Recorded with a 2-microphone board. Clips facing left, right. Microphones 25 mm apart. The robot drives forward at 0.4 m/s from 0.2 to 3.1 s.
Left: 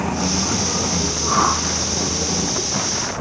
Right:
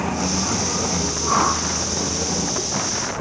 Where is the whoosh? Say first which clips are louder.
Left 1 dB; centre (ahead or behind), 5 m.